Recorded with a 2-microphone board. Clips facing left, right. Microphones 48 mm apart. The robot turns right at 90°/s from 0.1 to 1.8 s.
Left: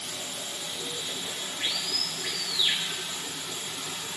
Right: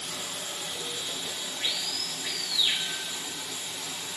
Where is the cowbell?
I don't hear a cowbell.